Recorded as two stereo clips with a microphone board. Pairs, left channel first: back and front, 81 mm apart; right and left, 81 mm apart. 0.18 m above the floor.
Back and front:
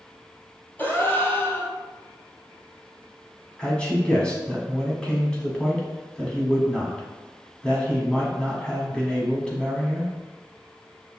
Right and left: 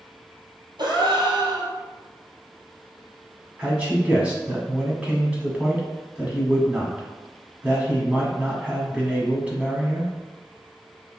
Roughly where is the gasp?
Behind left.